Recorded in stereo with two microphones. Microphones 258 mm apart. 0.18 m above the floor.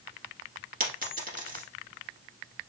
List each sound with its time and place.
0.8 s a dropped coin: 35° right (ahead or behind), 1.3 m